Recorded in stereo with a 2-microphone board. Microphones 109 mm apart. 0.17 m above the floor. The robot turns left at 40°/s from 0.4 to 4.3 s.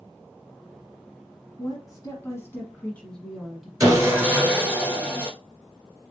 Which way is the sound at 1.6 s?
80° left.